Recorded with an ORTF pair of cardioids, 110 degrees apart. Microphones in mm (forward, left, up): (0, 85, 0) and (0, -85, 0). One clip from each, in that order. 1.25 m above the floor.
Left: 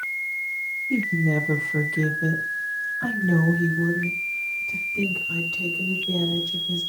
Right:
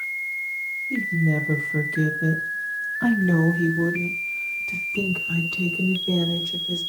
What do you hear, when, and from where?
0.9 s a woman speaking: 25° left, 1.2 m; by 6.8 s 65° right, 3.5 m